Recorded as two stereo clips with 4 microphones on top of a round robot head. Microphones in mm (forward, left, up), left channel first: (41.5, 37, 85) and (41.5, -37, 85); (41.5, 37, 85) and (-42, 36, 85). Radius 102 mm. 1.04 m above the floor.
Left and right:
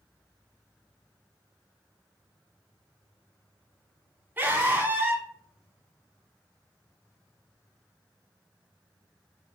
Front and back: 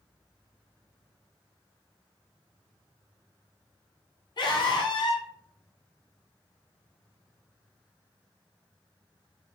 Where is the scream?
25° right, 1.3 m.